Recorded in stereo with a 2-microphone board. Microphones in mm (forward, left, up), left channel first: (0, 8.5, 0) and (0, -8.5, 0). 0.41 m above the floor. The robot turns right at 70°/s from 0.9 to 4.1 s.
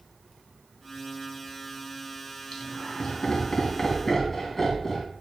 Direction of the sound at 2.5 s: 65° left (ahead or behind).